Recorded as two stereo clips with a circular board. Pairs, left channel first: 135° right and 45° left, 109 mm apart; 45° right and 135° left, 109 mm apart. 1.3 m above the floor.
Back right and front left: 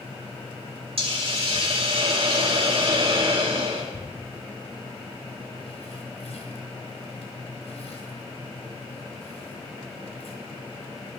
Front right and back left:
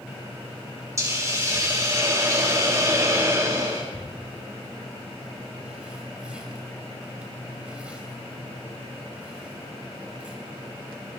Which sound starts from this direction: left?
A hiss, at 1.0 s.